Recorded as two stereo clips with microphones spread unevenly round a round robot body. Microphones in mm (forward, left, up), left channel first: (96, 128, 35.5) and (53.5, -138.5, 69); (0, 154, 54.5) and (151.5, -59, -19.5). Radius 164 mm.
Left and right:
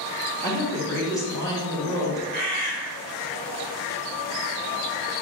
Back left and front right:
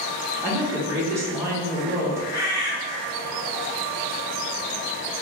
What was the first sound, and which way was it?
A woman speaking, 10° left.